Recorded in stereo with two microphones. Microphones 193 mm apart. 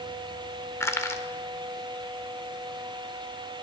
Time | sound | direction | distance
0.8 | crushing | 15° left (ahead or behind) | 0.9 m